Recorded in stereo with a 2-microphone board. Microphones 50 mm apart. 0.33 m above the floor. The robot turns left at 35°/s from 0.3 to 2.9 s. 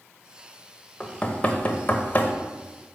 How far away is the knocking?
About 0.7 m.